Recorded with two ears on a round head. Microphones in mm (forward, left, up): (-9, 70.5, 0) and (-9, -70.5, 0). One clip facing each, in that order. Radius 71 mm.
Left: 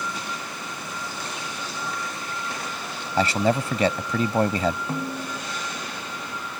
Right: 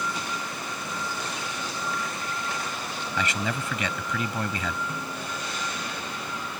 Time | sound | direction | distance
3.2 | a man speaking | 30° left (ahead or behind) | ?
4.9 | a snare drum | 35° left (ahead or behind) | ?